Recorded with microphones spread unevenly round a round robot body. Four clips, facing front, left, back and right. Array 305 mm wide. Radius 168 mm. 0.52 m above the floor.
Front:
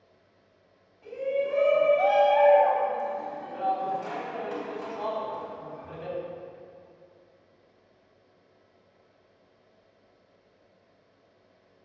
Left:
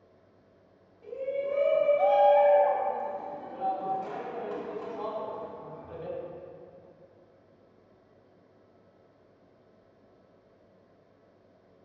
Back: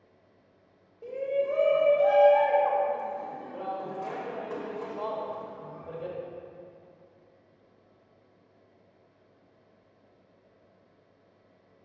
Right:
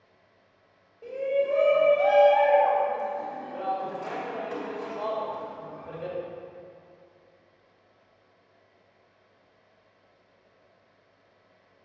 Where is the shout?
165° right, 2.5 m.